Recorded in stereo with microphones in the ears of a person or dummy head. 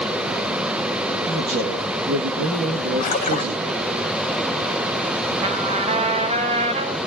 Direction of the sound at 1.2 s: 85° right.